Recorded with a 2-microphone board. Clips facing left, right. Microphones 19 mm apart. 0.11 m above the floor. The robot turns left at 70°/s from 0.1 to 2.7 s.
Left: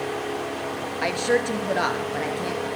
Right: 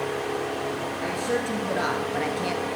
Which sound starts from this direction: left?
A woman speaking, at 1.0 s.